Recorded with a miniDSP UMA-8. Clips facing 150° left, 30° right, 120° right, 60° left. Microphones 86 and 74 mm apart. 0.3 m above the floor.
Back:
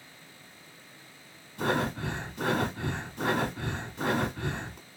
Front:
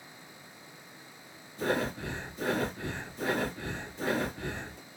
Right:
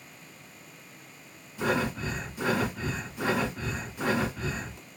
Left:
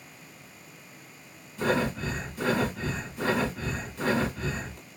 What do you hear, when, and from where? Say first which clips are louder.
1.6 s breathing: back 2 dB, left 1 dB; 160° left, 2 m